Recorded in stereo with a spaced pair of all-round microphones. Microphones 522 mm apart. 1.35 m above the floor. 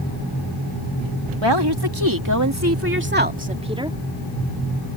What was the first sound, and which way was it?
A woman speaking, 55° right (ahead or behind).